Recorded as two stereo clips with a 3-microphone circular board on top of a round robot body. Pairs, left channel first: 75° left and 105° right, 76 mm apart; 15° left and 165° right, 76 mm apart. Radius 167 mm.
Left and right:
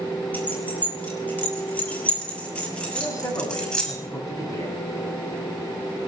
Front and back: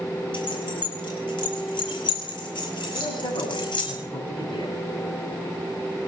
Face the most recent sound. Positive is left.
turn(degrees=30)